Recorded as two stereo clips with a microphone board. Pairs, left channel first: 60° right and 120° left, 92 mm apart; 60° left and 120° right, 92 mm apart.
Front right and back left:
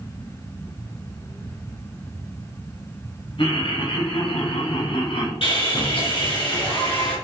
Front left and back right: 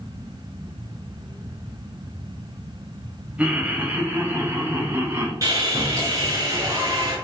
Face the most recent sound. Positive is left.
turn(degrees=-70)